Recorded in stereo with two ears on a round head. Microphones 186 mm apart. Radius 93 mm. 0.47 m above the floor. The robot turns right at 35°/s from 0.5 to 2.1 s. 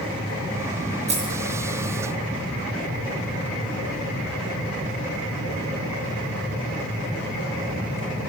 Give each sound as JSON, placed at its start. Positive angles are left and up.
{"t": 1.1, "sound": "keys jangling", "side_deg": -35, "distance_m": 6.0}